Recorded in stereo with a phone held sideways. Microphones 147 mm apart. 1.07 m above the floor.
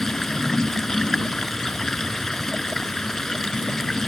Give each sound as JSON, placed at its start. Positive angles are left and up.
{"t": 0.0, "sound": "running water", "side_deg": 5}